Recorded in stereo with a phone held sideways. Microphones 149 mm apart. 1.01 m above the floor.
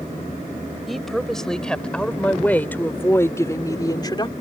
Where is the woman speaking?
Centre (ahead or behind); by 4.3 s 30° left (ahead or behind).